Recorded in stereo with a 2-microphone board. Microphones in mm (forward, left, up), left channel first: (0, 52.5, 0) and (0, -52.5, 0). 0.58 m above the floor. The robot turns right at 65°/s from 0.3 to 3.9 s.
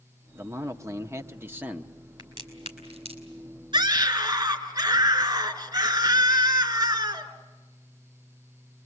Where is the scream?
45° right (ahead or behind), 3.5 m; by 7.3 s 35° right (ahead or behind), 3.5 m.